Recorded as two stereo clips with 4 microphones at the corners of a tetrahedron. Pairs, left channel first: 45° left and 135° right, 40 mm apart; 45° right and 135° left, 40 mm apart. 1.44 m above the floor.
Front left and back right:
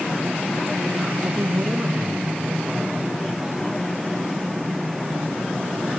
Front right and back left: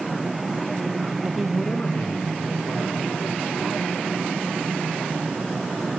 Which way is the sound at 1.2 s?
175° right.